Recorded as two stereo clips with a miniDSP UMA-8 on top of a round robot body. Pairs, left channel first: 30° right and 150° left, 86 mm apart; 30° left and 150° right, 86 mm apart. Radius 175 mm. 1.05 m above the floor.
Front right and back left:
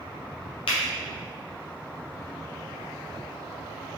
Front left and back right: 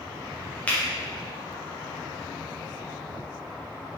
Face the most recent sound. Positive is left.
turn(degrees=-40)